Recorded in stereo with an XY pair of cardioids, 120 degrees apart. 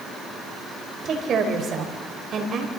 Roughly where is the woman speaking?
Ahead right.